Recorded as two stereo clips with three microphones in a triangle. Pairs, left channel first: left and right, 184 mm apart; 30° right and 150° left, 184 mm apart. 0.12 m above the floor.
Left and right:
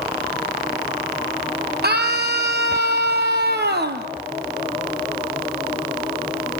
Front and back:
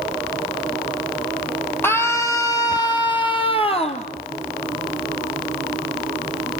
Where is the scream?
105° right, 3 m; by 4.1 s 80° right, 3 m.